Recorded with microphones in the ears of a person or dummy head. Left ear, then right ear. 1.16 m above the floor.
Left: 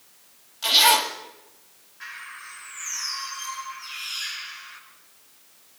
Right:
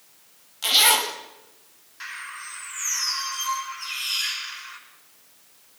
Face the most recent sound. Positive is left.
turn(degrees=-75)  # may be behind; listen again after turning